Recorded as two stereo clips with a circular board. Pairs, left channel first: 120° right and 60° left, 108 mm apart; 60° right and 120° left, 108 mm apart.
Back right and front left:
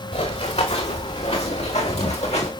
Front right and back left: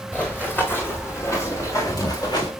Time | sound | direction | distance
0.1 | running footsteps | 135° right | 3.5 m